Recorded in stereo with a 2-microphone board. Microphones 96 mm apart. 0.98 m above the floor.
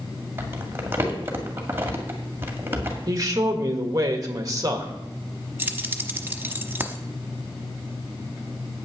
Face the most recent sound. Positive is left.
turn(degrees=-20)  # may be behind; listen again after turning